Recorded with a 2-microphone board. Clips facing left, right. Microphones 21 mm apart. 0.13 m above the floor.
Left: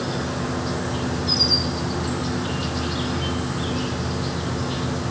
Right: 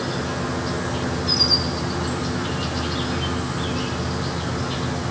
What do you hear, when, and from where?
0.0 s an insect: 5° right (ahead or behind), 1.2 m